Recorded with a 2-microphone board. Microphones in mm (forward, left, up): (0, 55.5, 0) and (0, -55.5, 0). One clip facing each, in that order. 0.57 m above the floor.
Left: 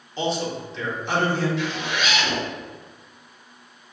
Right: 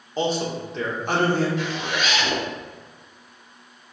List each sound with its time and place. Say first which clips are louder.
0.2 s a man speaking: right 1 dB; 45° right (ahead or behind), 1.3 m
1.6 s a zipper: even; 45° right (ahead or behind), 1.2 m